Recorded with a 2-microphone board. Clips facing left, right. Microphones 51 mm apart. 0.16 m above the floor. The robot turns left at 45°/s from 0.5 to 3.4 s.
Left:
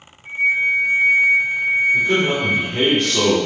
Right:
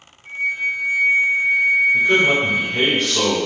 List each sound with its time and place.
0.2 s a flute: 20° left (ahead or behind), 1.4 m; by 2.9 s 5° right (ahead or behind), 1.4 m
1.9 s a man speaking: 130° right, 1.7 m; by 3.4 s 165° left, 1.7 m